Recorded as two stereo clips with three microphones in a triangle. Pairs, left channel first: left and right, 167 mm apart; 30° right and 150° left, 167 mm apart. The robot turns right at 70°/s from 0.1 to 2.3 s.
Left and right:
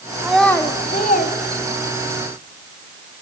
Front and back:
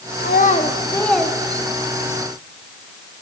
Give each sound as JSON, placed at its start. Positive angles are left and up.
{"t": 0.2, "sound": "a child speaking", "azimuth_deg": -10, "distance_m": 1.4}